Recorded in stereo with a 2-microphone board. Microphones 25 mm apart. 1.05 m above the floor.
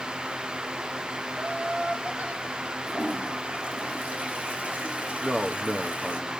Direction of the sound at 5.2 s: 30° right (ahead or behind).